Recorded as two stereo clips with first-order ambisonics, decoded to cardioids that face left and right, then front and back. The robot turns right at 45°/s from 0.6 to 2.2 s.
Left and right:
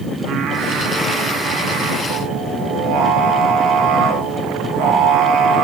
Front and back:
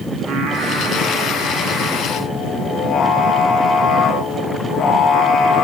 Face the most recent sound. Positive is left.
turn(degrees=-65)